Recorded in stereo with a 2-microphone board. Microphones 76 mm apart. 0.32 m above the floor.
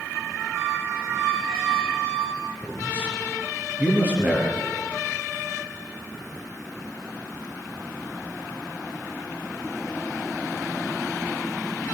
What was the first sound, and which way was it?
A squeak, 45° right (ahead or behind).